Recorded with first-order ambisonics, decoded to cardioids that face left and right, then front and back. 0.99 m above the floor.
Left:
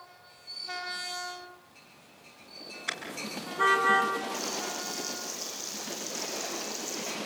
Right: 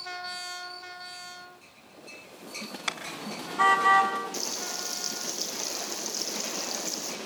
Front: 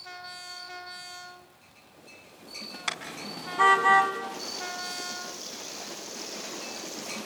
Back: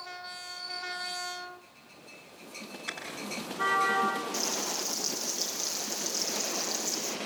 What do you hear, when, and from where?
2.9 s a car horn: 45° right, 4.5 m; by 4.1 s 35° right, 3.5 m
4.3 s frying: 130° right, 7.5 m